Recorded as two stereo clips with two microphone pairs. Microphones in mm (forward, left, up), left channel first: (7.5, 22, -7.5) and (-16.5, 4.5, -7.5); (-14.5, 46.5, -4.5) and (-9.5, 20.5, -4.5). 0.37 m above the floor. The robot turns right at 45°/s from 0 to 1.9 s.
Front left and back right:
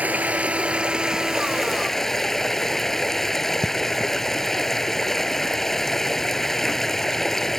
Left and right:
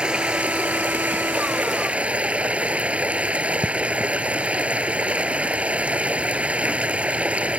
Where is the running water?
130° right; by 7.6 s 40° right.